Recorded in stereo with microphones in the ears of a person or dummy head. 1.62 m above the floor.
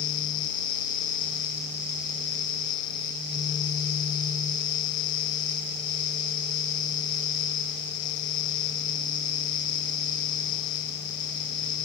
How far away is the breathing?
I don't hear breathing.